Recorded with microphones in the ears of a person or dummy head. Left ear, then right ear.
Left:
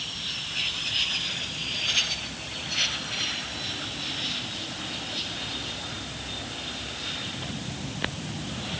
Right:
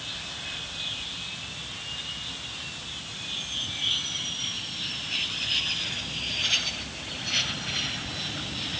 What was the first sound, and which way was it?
Only background noise.